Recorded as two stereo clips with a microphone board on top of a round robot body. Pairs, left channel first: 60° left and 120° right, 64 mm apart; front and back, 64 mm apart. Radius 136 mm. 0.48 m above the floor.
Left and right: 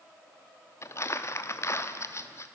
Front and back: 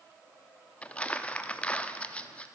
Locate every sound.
0.8 s crumpling: 60° left, 1.3 m